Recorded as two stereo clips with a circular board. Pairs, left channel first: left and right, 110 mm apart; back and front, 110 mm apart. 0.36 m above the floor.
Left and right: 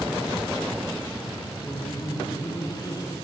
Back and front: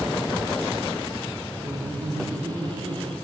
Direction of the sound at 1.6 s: 45° left.